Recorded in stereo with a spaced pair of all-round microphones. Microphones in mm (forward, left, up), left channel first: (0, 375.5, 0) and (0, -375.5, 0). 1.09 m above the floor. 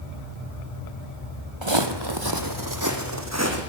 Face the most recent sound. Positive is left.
turn(degrees=-20)  # may be behind; listen again after turning